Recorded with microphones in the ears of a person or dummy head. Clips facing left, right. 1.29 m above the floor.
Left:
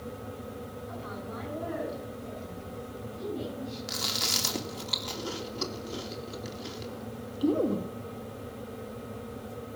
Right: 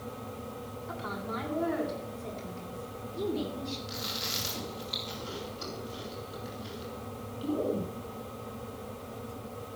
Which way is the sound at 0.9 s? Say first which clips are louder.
Right 5 dB; 90° right.